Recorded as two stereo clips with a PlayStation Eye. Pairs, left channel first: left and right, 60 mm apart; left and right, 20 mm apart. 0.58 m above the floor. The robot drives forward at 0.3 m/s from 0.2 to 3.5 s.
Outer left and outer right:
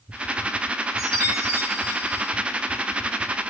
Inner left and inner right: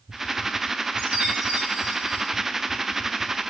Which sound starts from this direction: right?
A chime, at 1.0 s.